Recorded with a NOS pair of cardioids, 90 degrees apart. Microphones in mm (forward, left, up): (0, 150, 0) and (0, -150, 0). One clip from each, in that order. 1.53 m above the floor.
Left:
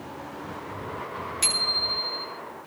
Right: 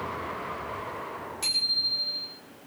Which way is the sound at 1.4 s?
55° left.